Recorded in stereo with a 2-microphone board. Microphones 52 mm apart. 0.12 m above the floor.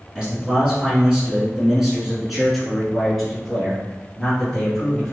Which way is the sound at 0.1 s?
15° right (ahead or behind).